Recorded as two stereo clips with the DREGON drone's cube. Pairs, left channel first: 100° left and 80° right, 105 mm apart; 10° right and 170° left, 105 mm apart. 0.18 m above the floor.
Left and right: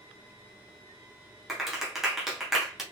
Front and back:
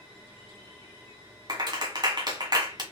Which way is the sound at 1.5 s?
165° right.